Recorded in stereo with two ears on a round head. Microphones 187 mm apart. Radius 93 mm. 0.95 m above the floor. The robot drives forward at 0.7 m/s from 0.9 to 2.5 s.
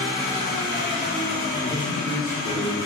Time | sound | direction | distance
0.0 | an engine running | 50° left (ahead or behind) | 1.9 m
1.6 | a man speaking | 25° left (ahead or behind) | 0.8 m